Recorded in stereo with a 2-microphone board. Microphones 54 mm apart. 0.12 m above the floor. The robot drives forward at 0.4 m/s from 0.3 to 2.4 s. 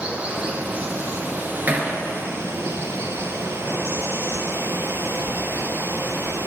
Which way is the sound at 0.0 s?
25° right (ahead or behind).